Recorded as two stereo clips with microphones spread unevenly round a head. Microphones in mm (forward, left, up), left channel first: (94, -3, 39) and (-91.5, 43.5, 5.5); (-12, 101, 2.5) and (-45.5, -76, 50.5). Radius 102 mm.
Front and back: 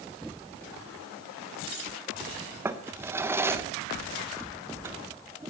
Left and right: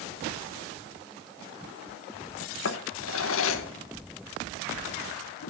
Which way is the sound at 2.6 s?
80° left.